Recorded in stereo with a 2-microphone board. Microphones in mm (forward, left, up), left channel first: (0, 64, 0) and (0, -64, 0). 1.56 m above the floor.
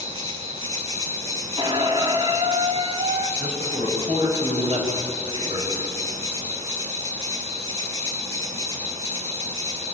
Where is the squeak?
35° right (ahead or behind), 1.3 m.